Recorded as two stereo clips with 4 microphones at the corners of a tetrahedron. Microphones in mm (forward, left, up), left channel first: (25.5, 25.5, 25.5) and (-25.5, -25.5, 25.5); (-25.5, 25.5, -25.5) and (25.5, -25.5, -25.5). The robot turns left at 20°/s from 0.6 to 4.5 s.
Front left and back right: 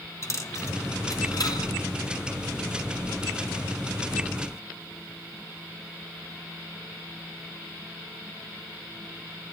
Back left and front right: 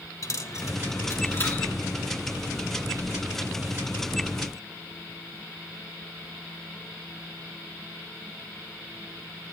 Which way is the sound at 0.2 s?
95° left.